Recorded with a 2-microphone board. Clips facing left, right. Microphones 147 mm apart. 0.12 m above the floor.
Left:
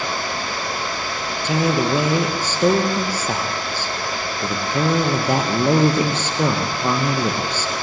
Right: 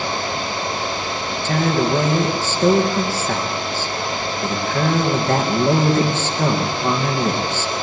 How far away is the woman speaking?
About 2.5 m.